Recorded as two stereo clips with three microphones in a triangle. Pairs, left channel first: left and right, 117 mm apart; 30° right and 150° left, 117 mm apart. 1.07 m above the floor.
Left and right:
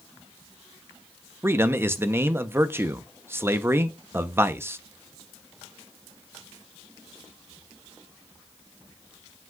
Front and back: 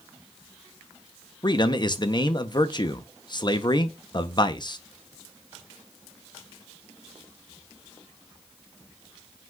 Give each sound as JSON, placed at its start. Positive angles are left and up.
{"t": 1.4, "sound": "a man speaking", "azimuth_deg": -30, "distance_m": 0.7}